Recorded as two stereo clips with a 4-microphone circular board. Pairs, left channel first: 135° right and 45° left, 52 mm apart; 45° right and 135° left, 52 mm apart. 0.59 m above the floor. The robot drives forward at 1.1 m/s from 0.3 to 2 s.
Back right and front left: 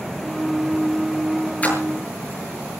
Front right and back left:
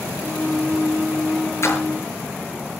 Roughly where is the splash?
Right.